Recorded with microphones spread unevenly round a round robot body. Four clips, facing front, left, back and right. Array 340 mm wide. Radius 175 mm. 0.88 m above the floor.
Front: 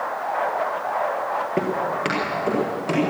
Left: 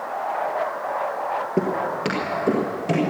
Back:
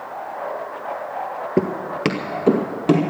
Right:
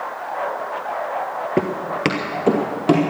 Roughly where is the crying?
No crying in this recording.